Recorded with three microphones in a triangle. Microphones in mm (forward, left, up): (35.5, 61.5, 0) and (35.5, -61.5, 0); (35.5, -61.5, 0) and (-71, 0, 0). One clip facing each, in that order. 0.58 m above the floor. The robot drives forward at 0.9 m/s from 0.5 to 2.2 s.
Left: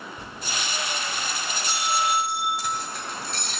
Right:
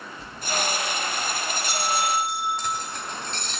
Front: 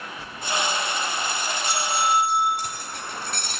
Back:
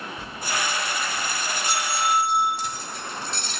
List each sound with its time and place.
0.2 s a bell: 100° left, 4 m; by 2.5 s 120° left, 4.5 m
2.6 s keys jangling: 5° left, 2.5 m